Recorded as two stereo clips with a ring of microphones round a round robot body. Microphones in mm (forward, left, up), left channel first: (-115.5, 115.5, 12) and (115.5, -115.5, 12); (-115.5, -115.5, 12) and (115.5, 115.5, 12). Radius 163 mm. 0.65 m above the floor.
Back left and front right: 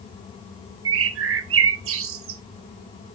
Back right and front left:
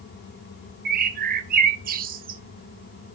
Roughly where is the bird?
Ahead.